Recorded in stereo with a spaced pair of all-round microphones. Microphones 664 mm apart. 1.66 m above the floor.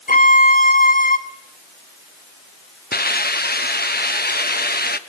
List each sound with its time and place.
0.1 s a violin: 15° left (ahead or behind), 1.1 m
2.9 s a hiss: 15° left (ahead or behind), 1.0 m